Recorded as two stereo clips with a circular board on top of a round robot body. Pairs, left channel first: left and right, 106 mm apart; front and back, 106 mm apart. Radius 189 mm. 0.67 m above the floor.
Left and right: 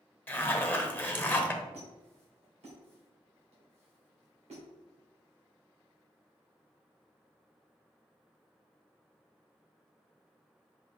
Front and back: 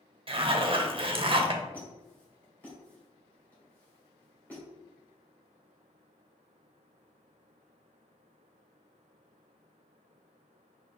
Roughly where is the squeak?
Right.